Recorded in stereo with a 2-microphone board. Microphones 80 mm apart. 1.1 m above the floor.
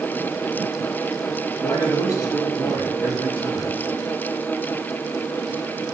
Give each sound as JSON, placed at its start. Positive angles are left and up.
{"t": 1.6, "sound": "a man speaking", "side_deg": 40, "distance_m": 2.0}